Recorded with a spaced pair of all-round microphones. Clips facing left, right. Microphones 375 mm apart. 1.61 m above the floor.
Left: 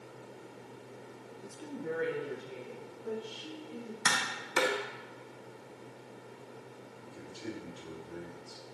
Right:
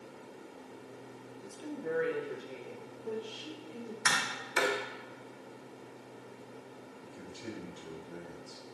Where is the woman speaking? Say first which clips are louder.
Right 1 dB; 25° left (ahead or behind), 0.5 m; by 4.0 s 60° left (ahead or behind), 2.5 m.